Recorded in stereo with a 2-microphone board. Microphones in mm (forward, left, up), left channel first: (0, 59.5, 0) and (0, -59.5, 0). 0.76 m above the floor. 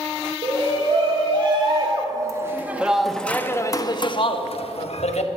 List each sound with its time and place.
0.4 s a shout: 55° right (ahead or behind), 2 m; by 5.3 s 65° left (ahead or behind), 1.5 m